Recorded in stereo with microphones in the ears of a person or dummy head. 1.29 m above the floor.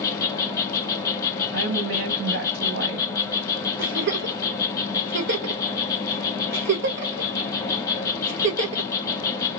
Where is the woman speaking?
85° right, 1.3 m.